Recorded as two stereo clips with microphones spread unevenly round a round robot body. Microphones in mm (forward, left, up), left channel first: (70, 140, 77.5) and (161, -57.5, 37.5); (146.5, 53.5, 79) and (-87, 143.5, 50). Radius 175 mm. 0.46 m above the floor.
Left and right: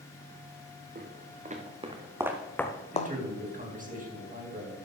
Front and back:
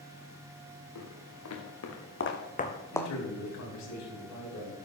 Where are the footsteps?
15° right, 3.5 m; by 3.1 s 65° left, 1.6 m.